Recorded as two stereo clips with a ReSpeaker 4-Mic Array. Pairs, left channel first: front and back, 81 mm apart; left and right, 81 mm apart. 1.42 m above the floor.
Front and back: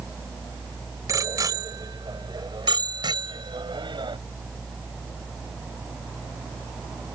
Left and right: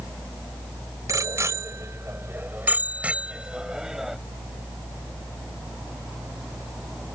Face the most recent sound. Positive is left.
turn(degrees=-175)